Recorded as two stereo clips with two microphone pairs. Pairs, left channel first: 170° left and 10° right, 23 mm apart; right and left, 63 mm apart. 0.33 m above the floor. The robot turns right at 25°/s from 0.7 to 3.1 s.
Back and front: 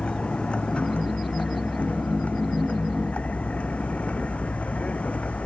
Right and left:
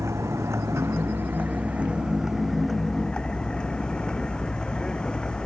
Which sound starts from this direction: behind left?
A vehicle, at 0.0 s.